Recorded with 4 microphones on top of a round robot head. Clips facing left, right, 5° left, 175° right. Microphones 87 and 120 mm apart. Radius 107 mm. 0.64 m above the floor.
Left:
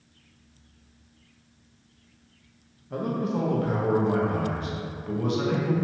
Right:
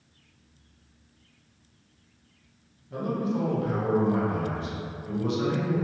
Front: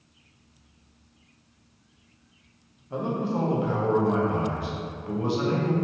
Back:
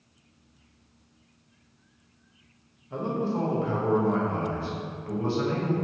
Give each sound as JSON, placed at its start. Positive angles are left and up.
{"t": 2.9, "sound": "a man speaking", "azimuth_deg": 75, "distance_m": 0.8}